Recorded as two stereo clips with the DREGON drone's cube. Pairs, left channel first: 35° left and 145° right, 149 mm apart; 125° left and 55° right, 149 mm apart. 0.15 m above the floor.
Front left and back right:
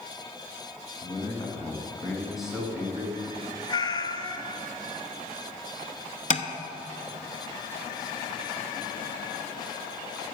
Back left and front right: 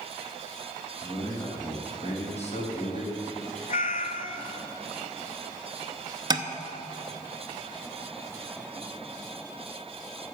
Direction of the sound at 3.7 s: 95° left.